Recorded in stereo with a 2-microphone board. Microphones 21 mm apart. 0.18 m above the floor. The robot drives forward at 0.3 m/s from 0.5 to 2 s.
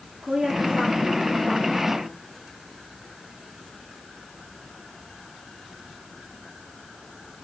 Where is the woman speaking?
45° right (ahead or behind), 3.5 m.